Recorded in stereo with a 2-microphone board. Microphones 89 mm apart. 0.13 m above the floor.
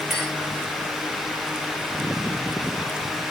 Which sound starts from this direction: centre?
A clink, at 0.1 s.